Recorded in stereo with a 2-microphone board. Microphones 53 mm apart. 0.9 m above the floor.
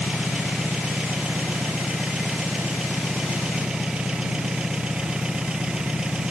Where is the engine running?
15° right (ahead or behind).